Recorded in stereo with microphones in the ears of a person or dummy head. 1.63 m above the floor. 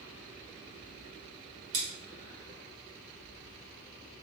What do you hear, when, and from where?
1.7 s scissors: 30° right (ahead or behind), 1.2 m